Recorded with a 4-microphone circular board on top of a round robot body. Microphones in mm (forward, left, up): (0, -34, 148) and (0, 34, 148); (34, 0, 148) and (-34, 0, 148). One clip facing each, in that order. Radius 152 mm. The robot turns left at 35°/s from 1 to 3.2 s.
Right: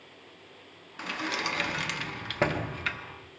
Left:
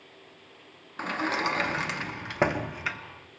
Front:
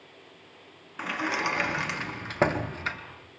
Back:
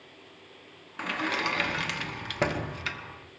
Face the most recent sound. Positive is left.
turn(degrees=5)